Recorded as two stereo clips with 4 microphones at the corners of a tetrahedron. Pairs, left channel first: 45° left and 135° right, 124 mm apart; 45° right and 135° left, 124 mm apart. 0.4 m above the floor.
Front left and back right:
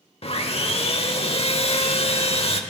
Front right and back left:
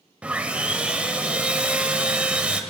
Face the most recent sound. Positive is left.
turn(degrees=60)